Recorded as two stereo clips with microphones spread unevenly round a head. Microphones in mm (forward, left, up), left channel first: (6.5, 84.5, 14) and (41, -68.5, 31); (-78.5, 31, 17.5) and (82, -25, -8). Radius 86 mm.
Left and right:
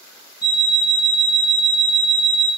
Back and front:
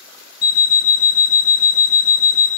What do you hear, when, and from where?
0.4 s an alarm clock: 165° right, 0.5 m